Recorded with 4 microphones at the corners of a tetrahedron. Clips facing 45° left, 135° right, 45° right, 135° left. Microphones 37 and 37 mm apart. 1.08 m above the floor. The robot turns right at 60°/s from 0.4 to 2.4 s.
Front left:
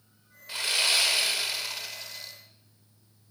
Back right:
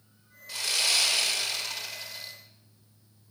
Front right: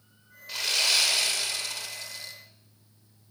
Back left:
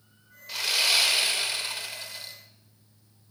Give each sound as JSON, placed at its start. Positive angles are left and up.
{"t": 0.5, "sound": "sawing", "azimuth_deg": 50, "distance_m": 0.8}